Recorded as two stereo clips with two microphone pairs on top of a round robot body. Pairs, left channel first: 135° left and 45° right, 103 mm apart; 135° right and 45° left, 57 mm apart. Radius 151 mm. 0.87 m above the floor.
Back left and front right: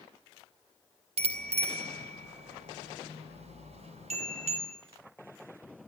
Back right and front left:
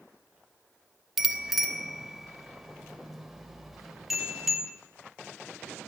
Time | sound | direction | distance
1.2 | a bicycle bell | 40° right | 3 m